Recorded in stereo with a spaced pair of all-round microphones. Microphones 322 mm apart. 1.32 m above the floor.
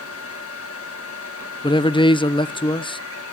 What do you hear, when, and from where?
0.0 s a fan: 45° left (ahead or behind), 1.5 m
1.6 s a man speaking: 15° left (ahead or behind), 0.5 m